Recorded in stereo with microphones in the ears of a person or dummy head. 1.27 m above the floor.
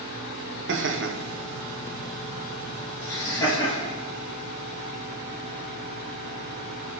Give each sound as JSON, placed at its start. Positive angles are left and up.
{"t": 0.7, "sound": "laughter", "side_deg": -55, "distance_m": 0.9}